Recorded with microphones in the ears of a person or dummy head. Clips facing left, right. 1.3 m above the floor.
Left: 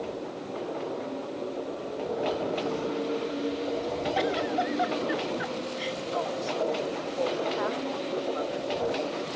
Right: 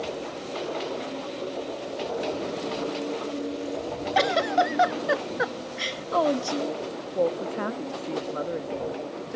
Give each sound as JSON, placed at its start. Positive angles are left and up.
{"t": 4.2, "sound": "a giggle", "side_deg": -70}
{"t": 7.2, "sound": "a woman speaking", "side_deg": -40}